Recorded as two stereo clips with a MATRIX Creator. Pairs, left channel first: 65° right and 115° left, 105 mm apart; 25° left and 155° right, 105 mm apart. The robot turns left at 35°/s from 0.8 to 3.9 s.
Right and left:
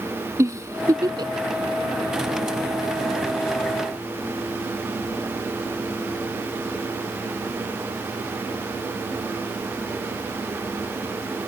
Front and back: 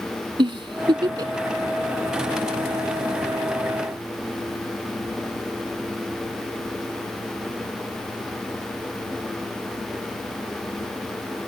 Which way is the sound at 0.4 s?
170° left.